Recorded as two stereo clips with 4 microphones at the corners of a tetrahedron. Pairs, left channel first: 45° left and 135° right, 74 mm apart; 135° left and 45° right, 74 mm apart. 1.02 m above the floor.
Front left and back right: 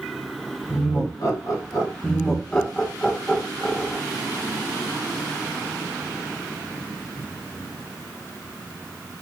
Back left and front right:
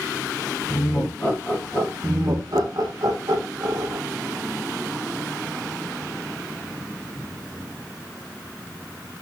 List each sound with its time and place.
0.7 s laughter: 75° left, 1.7 m
2.0 s laughter: 35° right, 0.9 m